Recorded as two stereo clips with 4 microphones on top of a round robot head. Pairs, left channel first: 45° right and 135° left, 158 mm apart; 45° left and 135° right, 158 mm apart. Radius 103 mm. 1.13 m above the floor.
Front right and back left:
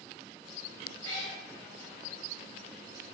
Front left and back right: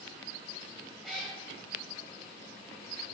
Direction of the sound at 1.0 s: 45° right.